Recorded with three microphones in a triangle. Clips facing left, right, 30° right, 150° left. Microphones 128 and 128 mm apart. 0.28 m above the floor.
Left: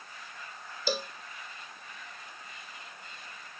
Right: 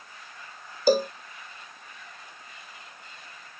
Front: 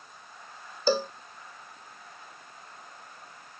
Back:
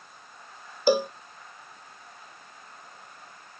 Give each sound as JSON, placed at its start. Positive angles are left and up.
{"t": 0.9, "sound": "a cowbell", "azimuth_deg": -135}